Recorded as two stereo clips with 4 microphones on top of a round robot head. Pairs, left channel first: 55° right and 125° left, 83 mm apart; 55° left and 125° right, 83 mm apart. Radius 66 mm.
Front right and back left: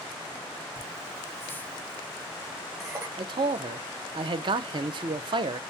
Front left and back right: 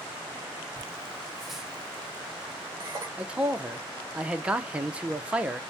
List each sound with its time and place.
0.8 s laughter: 15° right, 0.9 m; by 3.1 s straight behind, 1.1 m
3.2 s a man speaking: 155° left, 0.5 m